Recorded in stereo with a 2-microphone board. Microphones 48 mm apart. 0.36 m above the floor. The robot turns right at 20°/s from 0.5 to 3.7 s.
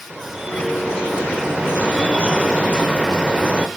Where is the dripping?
15° right (ahead or behind), 0.7 m; by 3.7 s 20° right (ahead or behind), 0.7 m.